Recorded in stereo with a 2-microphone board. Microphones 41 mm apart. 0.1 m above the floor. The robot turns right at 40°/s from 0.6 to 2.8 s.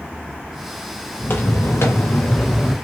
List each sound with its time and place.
1.2 s footsteps: 50° left (ahead or behind), 0.9 m; by 2.8 s 5° left (ahead or behind), 1.0 m